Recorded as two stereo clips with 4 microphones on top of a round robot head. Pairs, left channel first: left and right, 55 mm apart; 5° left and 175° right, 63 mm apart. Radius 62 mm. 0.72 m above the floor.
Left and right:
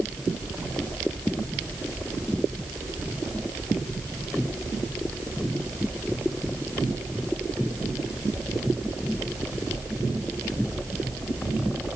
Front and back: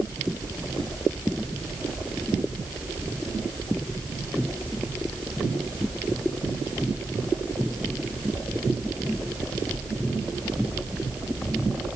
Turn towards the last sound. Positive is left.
No sound to turn to.